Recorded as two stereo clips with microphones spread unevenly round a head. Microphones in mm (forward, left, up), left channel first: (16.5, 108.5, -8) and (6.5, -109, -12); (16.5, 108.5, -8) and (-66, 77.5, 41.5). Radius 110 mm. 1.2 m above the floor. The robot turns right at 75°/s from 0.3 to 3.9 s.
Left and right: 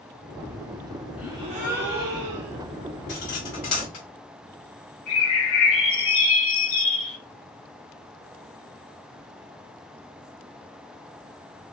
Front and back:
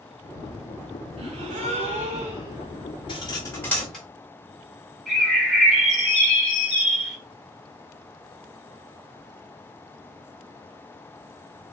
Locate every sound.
1.2 s a gasp: straight behind, 0.6 m; by 2.6 s 70° right, 0.6 m
3.1 s cutlery clinking: 50° left, 1.7 m; by 4.0 s 115° left, 1.7 m
5.1 s a bird: 105° left, 1.6 m